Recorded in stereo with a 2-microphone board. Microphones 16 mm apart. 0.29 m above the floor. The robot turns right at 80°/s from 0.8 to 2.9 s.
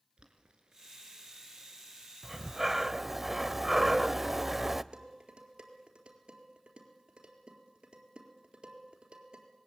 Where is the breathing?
15° right (ahead or behind), 0.6 m; by 4.8 s 20° right (ahead or behind), 0.6 m.